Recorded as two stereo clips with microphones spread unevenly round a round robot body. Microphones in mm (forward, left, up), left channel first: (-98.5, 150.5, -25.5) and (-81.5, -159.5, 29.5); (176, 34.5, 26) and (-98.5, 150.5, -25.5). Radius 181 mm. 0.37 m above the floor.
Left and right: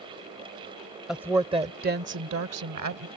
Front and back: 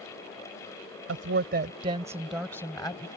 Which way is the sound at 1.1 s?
175° left.